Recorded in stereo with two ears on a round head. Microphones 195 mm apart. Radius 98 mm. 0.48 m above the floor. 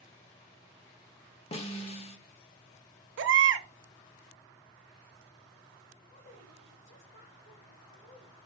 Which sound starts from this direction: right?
A baby crying, at 3.2 s.